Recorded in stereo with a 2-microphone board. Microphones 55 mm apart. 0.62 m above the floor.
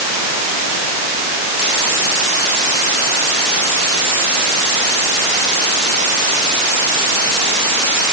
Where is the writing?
I don't hear writing.